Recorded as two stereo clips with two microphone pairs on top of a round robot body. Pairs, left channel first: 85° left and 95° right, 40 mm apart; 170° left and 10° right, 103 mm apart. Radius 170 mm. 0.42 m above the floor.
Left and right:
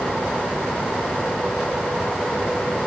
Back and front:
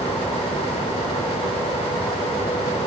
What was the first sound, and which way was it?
Only background noise.